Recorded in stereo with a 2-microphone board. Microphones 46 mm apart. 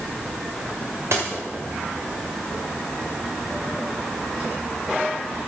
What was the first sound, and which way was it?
A dropped coin, 75° right (ahead or behind).